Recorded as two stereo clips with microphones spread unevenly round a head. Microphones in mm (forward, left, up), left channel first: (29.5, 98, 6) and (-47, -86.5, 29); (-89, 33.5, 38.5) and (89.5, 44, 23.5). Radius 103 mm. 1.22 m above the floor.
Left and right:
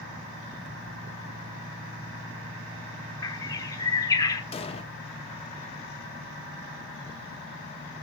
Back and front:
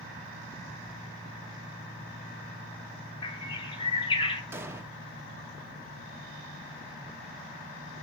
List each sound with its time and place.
3.2 s a bird: 140° left, 1.0 m
4.5 s an explosion: 70° left, 0.7 m